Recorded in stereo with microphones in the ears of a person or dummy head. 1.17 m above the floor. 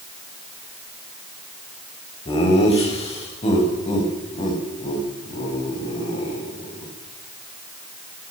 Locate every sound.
2.2 s laughter: 30° left (ahead or behind), 5.5 m; by 6.9 s 40° left (ahead or behind), 10 m